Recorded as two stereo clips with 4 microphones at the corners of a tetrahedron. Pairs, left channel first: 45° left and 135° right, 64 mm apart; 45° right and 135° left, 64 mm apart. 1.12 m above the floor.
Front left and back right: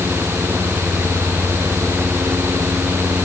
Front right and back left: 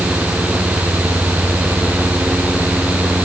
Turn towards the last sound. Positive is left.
No sound to turn to.